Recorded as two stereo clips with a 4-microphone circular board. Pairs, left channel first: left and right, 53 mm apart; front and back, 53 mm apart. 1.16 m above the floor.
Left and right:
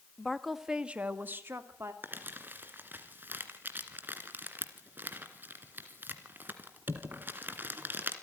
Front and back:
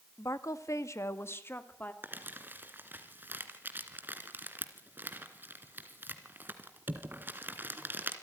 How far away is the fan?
No fan in this recording.